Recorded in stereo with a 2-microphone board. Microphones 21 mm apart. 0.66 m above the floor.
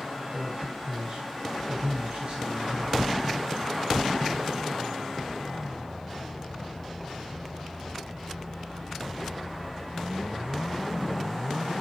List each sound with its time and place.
0.3 s a man speaking: 80° right, 6.5 m